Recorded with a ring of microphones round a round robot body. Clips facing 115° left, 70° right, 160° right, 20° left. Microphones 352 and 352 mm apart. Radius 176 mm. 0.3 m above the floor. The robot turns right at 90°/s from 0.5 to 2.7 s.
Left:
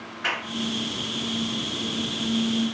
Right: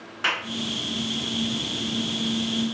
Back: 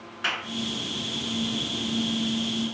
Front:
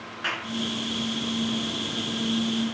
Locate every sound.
0.2 s a clap: 90° right, 2.5 m